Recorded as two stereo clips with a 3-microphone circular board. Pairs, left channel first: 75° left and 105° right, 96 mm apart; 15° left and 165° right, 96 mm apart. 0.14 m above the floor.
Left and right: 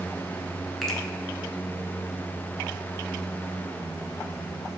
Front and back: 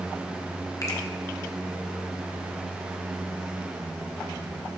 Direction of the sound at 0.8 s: 15° right.